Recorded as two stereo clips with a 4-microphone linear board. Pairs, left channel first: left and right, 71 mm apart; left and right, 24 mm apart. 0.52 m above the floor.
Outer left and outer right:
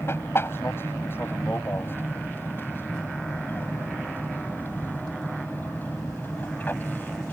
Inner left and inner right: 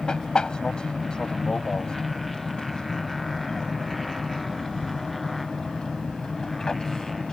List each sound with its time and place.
0.0 s an aircraft: 35° left (ahead or behind); by 7.3 s 25° left (ahead or behind)